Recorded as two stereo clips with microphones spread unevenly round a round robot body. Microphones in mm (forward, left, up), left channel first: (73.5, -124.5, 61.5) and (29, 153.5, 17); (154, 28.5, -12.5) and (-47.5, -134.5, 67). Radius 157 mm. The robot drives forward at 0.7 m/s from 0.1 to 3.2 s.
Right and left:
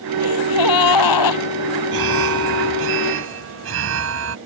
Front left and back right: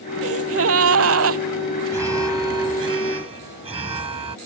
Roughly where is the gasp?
Right.